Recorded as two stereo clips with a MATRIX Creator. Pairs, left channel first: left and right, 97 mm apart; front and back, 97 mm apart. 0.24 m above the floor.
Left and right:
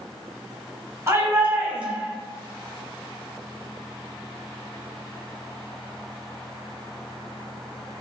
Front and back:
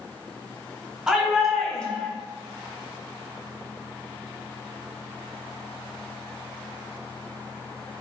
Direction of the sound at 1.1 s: 105° right.